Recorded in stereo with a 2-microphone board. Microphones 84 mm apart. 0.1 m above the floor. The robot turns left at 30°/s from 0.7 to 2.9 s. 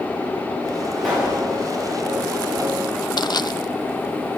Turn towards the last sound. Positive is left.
turn(degrees=60)  # may be behind; listen again after turning